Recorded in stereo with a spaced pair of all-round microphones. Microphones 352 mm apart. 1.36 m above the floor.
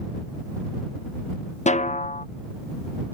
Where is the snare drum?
20° left (ahead or behind).